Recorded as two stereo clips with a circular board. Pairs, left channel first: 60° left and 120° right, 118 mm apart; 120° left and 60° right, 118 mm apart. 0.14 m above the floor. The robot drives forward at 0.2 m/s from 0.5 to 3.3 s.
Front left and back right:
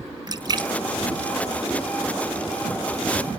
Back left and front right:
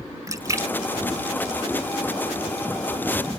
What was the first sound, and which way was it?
A splash, 100° right.